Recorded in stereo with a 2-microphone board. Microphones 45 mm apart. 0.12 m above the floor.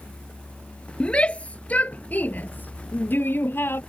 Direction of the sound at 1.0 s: 25° left (ahead or behind).